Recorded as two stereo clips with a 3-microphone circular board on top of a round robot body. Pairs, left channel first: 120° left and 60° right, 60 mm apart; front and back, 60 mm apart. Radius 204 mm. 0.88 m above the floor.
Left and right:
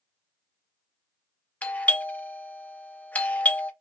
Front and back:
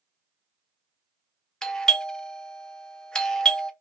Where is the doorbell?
70° left, 0.8 m.